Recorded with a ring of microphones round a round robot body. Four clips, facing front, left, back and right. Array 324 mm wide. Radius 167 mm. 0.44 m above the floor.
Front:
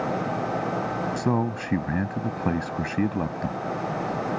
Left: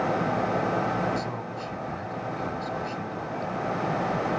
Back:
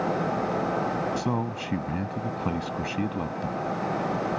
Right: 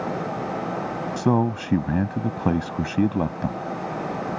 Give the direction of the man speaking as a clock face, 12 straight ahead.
2 o'clock.